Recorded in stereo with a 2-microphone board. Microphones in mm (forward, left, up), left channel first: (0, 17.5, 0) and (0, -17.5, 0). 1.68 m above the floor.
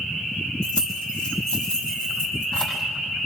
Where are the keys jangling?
30° left (ahead or behind), 5.5 m; by 2.8 s 25° left (ahead or behind), 7.5 m.